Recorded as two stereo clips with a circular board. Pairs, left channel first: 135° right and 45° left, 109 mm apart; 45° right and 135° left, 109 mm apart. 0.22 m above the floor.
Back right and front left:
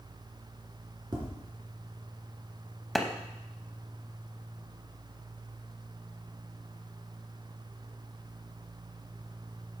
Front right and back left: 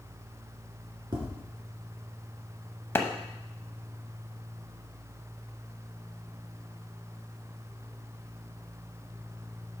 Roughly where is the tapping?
Left.